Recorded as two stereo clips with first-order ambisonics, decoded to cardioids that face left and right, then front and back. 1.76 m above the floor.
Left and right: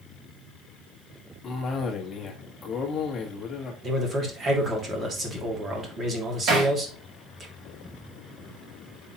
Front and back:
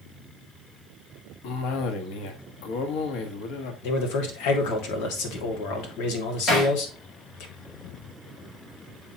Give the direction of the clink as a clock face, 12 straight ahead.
No clink in this recording.